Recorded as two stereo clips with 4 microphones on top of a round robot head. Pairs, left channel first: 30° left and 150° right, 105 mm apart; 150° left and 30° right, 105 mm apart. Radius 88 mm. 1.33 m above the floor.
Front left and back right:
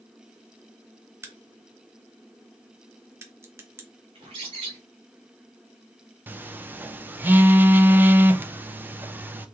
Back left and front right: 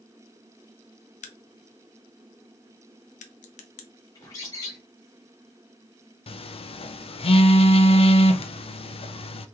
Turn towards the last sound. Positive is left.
turn(degrees=140)